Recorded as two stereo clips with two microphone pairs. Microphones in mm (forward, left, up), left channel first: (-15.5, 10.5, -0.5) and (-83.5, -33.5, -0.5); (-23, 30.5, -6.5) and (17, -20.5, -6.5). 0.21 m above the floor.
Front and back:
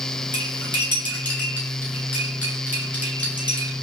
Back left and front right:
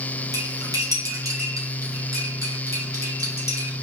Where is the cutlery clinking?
35° right, 1.7 m.